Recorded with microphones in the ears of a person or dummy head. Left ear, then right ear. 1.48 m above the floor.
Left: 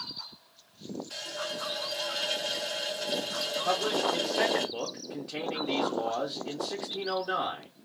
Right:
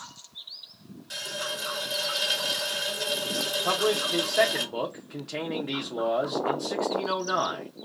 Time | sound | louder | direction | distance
1.1 | a running tap | right 4 dB | 55° right (ahead or behind) | 1.1 m
3.6 | a man speaking | right 2 dB | 15° right (ahead or behind) | 0.6 m